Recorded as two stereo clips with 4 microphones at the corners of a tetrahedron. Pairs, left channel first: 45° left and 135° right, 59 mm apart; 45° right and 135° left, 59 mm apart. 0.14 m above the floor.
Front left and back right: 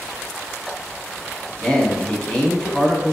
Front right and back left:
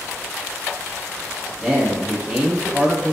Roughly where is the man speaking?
Left.